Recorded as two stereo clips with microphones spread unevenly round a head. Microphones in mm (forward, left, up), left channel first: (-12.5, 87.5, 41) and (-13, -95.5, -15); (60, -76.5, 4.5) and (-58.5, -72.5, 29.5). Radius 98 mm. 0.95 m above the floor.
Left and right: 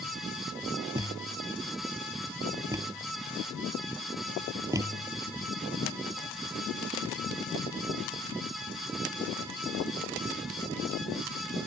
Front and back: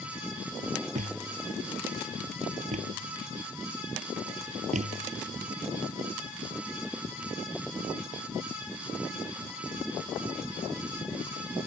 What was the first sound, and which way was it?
A thud, 165° right.